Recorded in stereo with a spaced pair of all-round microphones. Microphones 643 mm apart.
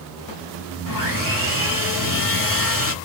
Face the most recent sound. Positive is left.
turn(degrees=30)  # may be behind; listen again after turning